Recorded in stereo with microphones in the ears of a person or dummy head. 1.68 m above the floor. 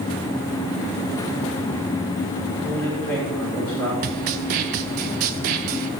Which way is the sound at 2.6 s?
10° left (ahead or behind).